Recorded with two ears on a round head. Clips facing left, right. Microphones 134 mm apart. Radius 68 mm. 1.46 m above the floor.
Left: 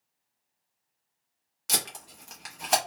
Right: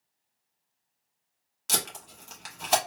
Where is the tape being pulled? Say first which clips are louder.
Right 1 dB; 5° left (ahead or behind), 0.9 m.